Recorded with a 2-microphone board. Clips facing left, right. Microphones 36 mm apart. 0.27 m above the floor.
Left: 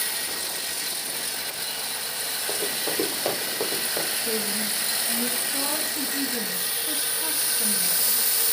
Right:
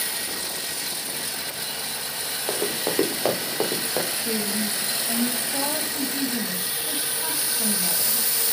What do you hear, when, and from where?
2.5 s running footsteps: 55° right (ahead or behind), 3 m; by 4.1 s 50° right (ahead or behind), 4 m
4.2 s a woman speaking: 30° right (ahead or behind), 1.3 m